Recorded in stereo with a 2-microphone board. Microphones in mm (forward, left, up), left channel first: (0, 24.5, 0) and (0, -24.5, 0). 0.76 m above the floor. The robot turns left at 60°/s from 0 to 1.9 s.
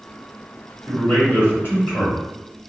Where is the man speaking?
135° left, 1.6 m; by 2.2 s 70° left, 1.6 m.